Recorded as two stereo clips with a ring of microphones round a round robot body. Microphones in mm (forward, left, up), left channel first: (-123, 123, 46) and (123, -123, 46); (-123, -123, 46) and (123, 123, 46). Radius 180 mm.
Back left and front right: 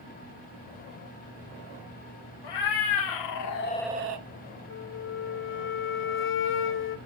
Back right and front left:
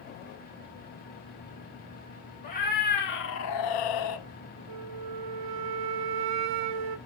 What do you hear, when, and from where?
2.4 s a cat meowing: 155° left, 2 m; by 4.2 s 75° right, 0.7 m
4.7 s a flute: 75° left, 0.7 m